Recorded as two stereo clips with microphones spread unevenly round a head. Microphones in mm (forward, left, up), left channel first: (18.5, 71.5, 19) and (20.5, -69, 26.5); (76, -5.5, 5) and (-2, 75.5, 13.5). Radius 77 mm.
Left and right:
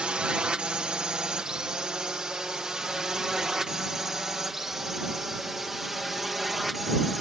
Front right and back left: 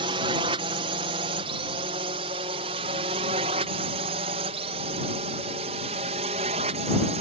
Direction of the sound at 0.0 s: 175° right.